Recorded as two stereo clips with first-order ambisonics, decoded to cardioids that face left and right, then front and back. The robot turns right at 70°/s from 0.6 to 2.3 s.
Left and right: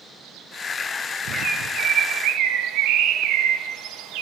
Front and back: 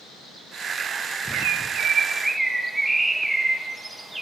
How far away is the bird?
About 1.1 m.